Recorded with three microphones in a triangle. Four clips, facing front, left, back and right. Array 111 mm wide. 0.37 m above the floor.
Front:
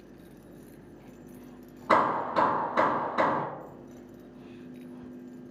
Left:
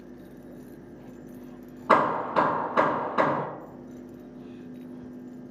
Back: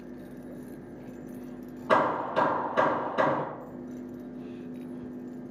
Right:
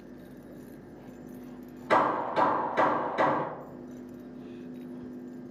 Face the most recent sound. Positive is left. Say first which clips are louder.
# left 3 dB, even
turn(degrees=75)